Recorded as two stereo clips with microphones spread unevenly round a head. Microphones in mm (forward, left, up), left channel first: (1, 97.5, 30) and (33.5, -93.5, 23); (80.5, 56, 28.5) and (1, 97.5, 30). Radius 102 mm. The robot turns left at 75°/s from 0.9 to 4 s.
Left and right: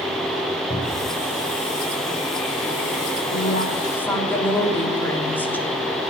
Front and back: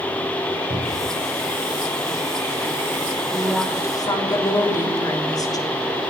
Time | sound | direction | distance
0.7 | a cupboard door | 170° left | 5.5 m
3.3 | a woman speaking | 70° left | 3.5 m